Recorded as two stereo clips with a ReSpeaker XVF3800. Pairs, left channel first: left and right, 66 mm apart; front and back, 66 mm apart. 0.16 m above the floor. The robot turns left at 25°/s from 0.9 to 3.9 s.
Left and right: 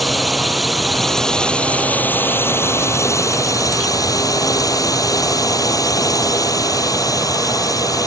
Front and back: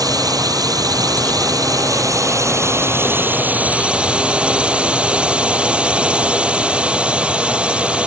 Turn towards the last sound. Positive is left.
turn(degrees=105)